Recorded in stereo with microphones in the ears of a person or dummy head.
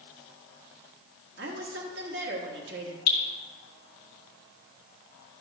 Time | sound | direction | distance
1.4 | a woman speaking | 60° right (ahead or behind) | 1.2 m
3.1 | dripping | 55° left (ahead or behind) | 1.4 m